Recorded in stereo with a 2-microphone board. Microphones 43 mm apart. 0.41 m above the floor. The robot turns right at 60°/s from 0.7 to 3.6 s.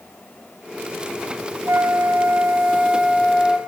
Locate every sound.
1.7 s a flute: 105° right, 0.6 m; by 3.6 s 15° left, 0.6 m